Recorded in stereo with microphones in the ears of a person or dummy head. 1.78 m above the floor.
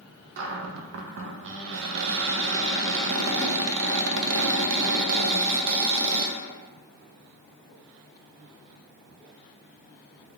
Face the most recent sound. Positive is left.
turn(degrees=-70)  # may be behind; listen again after turning